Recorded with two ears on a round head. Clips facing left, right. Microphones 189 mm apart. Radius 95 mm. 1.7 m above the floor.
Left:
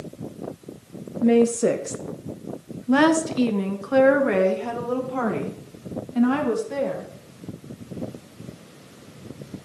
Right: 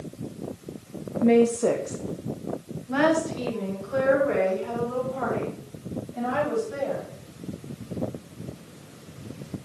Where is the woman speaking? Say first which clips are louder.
Left 1 dB; 5° left (ahead or behind), 0.7 m; by 7.1 s 85° left, 3 m.